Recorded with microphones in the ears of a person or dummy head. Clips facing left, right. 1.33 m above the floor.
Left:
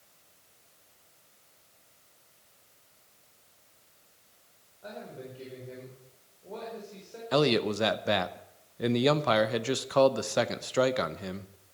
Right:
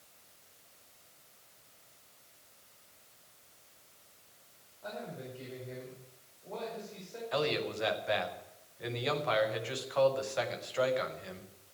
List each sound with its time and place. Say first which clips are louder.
4.8 s a man speaking: even; 20° left (ahead or behind), 5 m
7.3 s a man speaking: left 8 dB; 70° left (ahead or behind), 0.9 m